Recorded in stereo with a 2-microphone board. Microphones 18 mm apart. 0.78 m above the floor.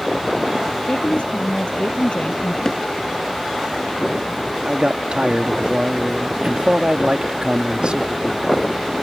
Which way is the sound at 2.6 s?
35° left (ahead or behind).